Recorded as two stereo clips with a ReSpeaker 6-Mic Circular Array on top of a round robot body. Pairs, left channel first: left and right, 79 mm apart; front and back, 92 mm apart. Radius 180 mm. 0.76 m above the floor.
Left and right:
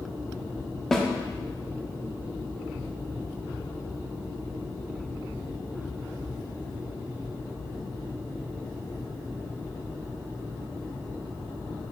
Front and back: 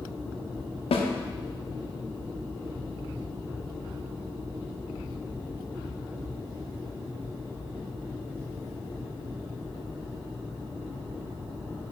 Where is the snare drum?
5° left, 0.9 m.